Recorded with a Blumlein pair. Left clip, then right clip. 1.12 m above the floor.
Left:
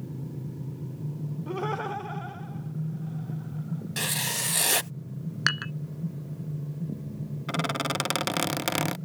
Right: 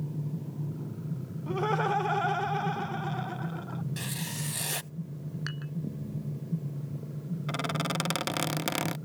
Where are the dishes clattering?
55° left.